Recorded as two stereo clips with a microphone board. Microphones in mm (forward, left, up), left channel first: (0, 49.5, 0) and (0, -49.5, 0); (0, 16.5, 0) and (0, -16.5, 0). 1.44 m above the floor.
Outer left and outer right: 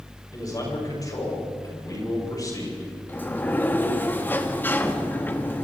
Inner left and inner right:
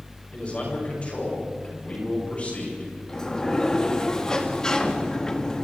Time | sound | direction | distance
0.3 | a man speaking | 35° left (ahead or behind) | 8.5 m
3.1 | a sliding door | 20° left (ahead or behind) | 1.7 m